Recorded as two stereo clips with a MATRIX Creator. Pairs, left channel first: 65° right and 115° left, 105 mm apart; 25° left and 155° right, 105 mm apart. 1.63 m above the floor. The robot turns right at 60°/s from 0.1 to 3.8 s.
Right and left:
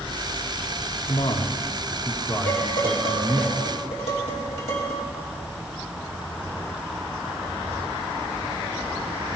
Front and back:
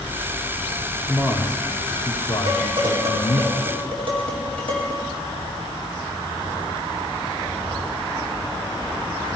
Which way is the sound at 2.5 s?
135° right.